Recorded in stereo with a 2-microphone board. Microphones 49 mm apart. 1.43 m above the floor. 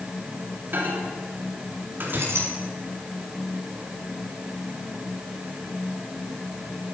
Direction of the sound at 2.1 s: 60° right (ahead or behind).